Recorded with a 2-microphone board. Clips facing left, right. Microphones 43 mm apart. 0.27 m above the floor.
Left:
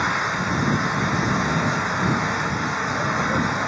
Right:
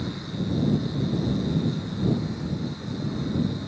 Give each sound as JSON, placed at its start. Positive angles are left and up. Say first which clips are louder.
{"t": 0.0, "sound": "an engine running", "louder": "left 10 dB", "side_deg": 70}